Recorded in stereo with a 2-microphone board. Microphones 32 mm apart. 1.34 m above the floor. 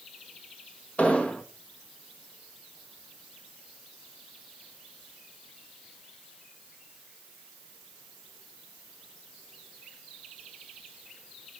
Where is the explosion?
40° left (ahead or behind), 1.5 m.